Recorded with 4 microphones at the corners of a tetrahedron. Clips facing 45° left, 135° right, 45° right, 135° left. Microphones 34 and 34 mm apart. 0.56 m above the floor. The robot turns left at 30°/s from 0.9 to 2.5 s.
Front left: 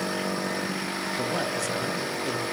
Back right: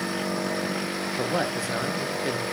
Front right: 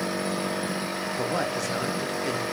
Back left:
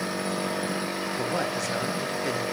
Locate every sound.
1.2 s a man speaking: 110° right, 0.6 m; by 2.4 s 150° right, 0.6 m